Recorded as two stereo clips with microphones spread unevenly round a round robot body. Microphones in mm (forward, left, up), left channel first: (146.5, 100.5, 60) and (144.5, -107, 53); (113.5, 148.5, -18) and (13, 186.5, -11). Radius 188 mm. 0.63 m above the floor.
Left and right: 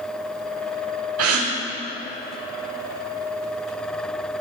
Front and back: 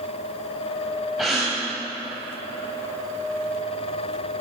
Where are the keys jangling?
I don't hear keys jangling.